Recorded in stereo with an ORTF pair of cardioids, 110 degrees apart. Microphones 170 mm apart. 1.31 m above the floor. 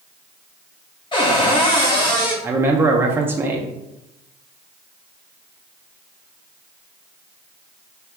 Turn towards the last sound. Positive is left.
turn(degrees=-15)